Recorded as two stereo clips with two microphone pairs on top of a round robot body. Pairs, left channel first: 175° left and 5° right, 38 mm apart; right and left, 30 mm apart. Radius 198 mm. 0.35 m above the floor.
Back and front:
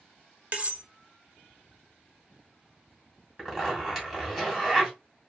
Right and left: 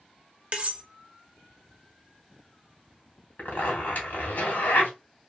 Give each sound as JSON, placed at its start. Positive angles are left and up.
{"t": 0.5, "sound": "cutlery clinking", "azimuth_deg": 45, "distance_m": 1.2}
{"t": 3.4, "sound": "a zipper", "azimuth_deg": -85, "distance_m": 2.5}